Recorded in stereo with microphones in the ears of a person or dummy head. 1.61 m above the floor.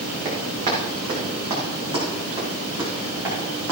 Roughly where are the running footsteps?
Right.